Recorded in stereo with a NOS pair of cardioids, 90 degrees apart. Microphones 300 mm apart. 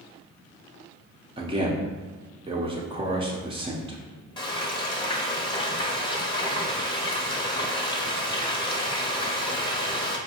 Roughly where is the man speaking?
Ahead.